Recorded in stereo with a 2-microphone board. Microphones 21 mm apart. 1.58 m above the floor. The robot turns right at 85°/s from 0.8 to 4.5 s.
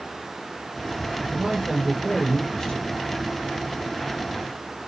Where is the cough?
I don't hear a cough.